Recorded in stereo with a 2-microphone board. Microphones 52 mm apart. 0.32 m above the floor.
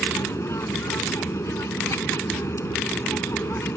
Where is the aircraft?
65° left (ahead or behind); by 3.8 s 60° left (ahead or behind).